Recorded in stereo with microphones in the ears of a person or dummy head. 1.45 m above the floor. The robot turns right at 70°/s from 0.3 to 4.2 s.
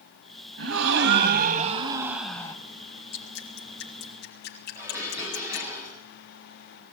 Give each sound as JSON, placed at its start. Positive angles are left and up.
{"t": 0.6, "sound": "a gasp", "azimuth_deg": -115, "distance_m": 2.5}
{"t": 3.1, "sound": "dripping", "side_deg": 50, "distance_m": 3.0}
{"t": 4.8, "sound": "dishes clattering", "side_deg": -15, "distance_m": 7.0}